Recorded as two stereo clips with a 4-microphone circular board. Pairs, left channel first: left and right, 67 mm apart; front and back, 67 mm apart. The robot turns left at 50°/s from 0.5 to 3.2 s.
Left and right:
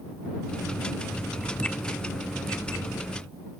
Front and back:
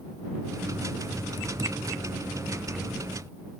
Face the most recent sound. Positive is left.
No sound to turn to.